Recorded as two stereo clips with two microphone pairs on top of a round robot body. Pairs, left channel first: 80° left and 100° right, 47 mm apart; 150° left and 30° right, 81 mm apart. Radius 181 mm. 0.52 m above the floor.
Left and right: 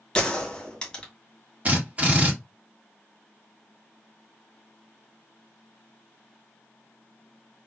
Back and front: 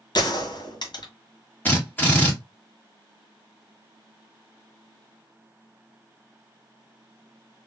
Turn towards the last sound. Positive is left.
turn(degrees=-145)